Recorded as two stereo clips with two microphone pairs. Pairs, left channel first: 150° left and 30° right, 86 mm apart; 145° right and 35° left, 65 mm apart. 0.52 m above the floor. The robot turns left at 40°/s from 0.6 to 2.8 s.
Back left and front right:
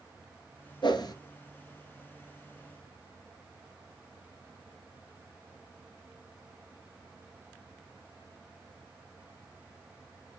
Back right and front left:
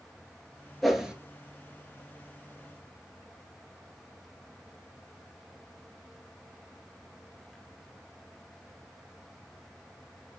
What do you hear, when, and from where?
0.8 s a whoosh: 125° left, 2 m; by 1.1 s 110° left, 2 m